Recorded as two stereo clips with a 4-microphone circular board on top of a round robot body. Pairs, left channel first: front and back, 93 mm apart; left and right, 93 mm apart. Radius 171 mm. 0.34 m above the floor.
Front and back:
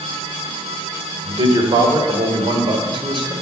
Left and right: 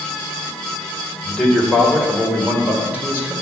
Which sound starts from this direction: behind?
A man speaking, at 1.2 s.